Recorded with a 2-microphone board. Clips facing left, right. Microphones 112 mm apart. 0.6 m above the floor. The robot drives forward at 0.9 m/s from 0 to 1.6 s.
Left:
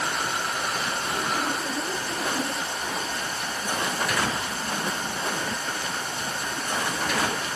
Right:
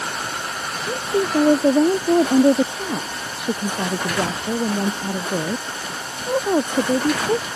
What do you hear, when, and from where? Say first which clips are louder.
0.8 s a woman speaking: right 7 dB; 85° right